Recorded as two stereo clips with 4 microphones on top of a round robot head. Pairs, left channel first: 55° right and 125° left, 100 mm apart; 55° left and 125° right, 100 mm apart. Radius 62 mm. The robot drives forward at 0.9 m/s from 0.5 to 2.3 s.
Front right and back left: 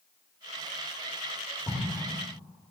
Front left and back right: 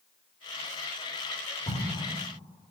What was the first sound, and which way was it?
An explosion, 10° left.